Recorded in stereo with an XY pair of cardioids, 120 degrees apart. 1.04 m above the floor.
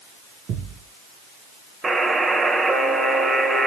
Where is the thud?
65° right, 4 m.